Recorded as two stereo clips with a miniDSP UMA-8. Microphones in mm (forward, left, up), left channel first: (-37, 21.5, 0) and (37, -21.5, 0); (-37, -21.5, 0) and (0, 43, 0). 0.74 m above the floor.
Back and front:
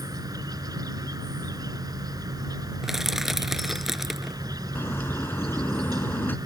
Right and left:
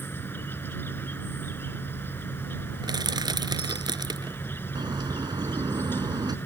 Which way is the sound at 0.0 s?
65° right.